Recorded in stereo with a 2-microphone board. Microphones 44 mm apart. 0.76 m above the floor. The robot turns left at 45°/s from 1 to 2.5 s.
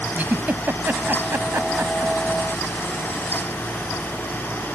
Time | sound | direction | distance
0.1 | a giggle | 35° right (ahead or behind) | ?